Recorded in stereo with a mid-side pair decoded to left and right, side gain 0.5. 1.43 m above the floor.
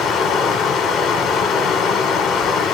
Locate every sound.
0.0 s running water: 65° left, 1.1 m